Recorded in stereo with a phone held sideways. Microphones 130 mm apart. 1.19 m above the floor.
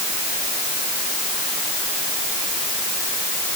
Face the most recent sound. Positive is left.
No sound to turn to.